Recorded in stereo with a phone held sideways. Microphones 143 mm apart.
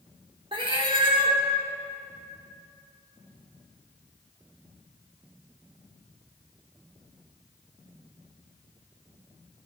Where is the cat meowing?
35° right (ahead or behind), 1.0 m.